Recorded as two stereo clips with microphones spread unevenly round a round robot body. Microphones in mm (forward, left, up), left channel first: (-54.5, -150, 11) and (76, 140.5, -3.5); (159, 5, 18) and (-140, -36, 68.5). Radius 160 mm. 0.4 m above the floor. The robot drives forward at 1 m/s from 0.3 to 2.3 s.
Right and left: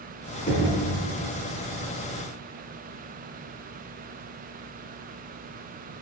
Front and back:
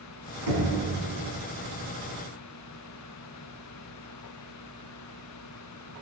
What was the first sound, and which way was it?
Knocking, 170° left.